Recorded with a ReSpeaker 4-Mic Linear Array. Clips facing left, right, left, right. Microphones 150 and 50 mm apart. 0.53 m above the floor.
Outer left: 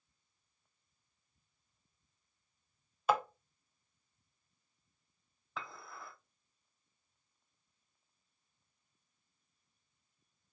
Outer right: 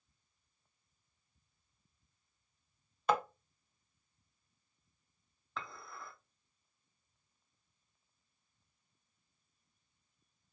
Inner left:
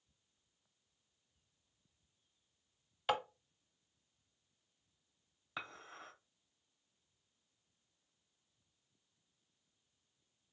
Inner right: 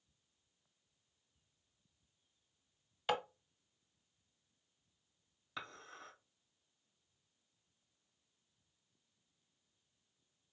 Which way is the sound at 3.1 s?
5° left (ahead or behind).